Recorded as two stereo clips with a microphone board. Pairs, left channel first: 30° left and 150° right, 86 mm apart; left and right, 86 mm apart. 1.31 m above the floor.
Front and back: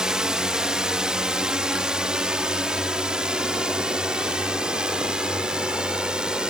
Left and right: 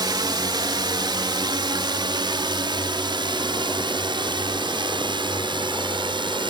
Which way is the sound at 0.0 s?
70° right.